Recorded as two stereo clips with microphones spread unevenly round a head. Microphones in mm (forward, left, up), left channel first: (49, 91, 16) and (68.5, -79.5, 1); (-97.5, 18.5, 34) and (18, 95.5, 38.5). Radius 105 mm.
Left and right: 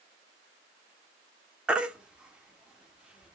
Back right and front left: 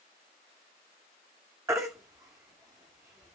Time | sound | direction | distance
1.7 | a baby crying | 5° left | 0.5 m